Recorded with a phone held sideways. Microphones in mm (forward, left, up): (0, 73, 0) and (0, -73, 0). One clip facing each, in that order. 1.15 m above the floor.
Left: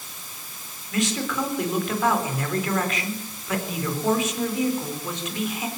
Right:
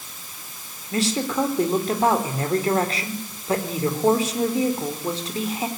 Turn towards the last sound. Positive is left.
turn(degrees=-35)  # may be behind; listen again after turning